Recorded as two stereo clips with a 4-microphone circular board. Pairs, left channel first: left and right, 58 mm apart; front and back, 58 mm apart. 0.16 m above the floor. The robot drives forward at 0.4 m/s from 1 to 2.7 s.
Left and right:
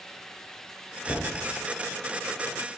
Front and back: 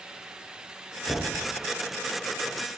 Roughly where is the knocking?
Left.